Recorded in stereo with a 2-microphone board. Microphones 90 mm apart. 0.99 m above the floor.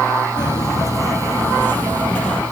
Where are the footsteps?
50° left (ahead or behind), 1.7 m; by 2.4 s 10° left (ahead or behind), 2 m.